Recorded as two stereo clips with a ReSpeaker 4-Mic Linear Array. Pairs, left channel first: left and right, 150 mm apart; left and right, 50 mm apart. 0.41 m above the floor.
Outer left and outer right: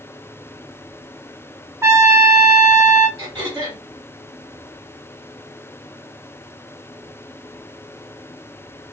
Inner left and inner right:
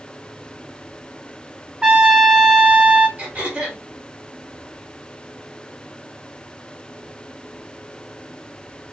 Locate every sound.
1.8 s a trumpet: 15° right (ahead or behind), 0.7 m
3.2 s throat clearing: 30° right (ahead or behind), 1.9 m